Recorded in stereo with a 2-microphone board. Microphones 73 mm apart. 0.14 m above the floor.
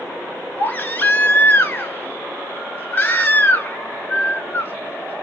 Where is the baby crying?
25° left (ahead or behind), 0.8 m.